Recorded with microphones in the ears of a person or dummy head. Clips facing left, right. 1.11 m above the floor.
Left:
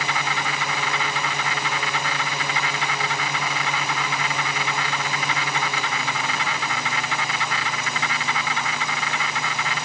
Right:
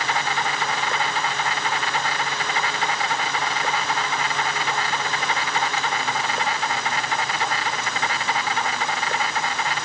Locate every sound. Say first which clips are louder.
0.0 s an insect: right 2 dB; 40° right (ahead or behind)